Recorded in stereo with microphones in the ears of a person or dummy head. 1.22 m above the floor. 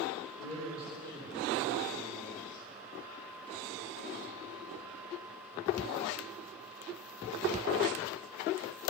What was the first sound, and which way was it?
A man speaking, 10° left (ahead or behind).